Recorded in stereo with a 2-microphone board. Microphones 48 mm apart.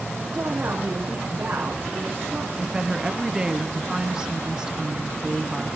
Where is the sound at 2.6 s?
15° right (ahead or behind), 1.1 m.